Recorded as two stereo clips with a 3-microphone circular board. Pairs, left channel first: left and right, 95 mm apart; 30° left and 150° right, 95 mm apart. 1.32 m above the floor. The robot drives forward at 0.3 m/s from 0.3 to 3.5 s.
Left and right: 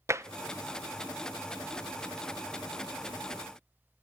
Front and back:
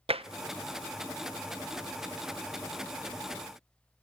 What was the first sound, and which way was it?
Tapping, 150° right.